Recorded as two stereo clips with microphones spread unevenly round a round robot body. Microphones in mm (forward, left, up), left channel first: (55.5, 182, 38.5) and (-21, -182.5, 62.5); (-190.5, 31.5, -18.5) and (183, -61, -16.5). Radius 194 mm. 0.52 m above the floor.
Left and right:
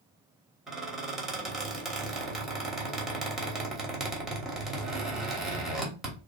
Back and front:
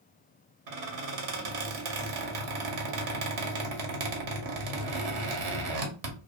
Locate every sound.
0.7 s a squeak: 10° right, 1.0 m